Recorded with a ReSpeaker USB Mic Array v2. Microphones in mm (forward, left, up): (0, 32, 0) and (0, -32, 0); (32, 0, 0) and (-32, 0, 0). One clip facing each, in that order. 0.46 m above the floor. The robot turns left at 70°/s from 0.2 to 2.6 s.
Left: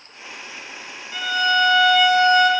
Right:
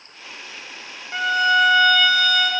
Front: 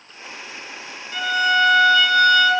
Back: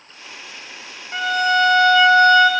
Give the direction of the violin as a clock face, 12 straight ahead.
4 o'clock.